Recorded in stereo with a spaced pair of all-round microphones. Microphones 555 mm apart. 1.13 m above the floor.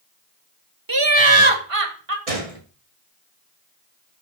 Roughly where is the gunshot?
Right.